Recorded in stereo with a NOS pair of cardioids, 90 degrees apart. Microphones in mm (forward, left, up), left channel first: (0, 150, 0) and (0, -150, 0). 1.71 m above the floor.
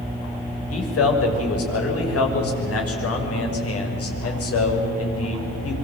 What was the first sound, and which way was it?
A man speaking, 50° left.